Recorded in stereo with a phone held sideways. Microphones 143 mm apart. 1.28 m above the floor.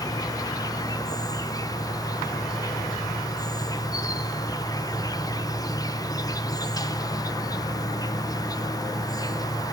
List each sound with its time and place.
0.0 s an insect: 25° left (ahead or behind), 0.9 m